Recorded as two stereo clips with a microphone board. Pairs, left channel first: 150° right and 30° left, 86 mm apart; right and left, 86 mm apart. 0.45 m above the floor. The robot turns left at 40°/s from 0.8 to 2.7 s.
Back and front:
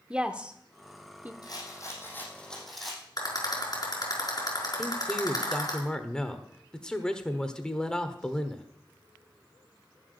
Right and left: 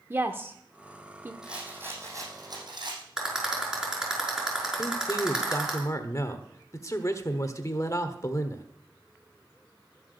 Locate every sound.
0.1 s a woman speaking: 90° left, 0.8 m; by 1.3 s 70° left, 0.8 m
1.4 s a rattle: 175° left, 4.5 m; by 3.0 s 120° left, 4.5 m
3.2 s a rattle: 170° left, 4.5 m
4.8 s a man speaking: 75° right, 1.2 m